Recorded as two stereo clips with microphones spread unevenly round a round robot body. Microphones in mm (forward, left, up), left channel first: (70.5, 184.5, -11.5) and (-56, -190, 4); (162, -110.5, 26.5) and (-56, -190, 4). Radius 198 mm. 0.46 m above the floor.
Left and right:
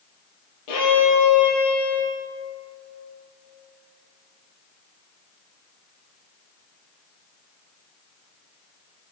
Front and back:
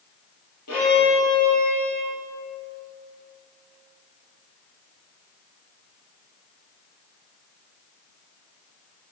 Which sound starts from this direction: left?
A violin, at 0.7 s.